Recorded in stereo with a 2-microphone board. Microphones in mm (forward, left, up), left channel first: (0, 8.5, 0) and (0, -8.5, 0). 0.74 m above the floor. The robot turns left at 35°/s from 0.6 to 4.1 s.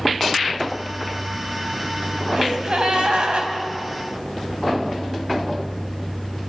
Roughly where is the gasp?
Ahead right.